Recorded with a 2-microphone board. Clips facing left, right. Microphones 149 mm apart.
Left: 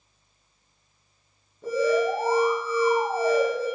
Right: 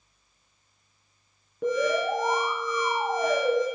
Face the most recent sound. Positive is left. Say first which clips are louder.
# left 2 dB
turn(degrees=-75)  # may be behind; listen again after turning